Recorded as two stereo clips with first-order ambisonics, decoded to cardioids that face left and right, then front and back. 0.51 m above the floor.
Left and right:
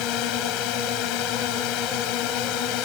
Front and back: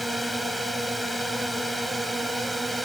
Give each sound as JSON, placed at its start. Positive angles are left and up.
{"t": 0.0, "sound": "a drone", "azimuth_deg": 90}